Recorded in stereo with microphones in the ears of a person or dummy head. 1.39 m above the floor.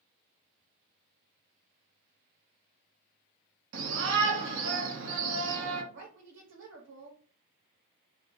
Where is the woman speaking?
75° right (ahead or behind), 0.7 m.